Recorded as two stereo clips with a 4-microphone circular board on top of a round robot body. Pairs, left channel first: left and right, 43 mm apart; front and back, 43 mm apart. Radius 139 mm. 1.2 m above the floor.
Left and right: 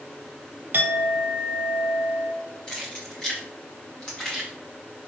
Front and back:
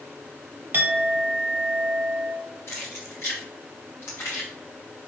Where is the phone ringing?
I don't hear a phone ringing.